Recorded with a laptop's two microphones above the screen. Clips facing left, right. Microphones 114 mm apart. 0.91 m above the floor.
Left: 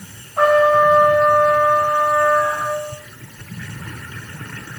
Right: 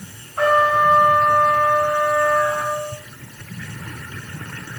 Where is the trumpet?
85° left, 4.5 m.